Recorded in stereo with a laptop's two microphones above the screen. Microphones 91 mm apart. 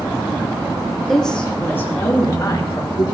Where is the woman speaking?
5° left (ahead or behind), 2.5 m; by 3.0 s 50° left (ahead or behind), 3 m.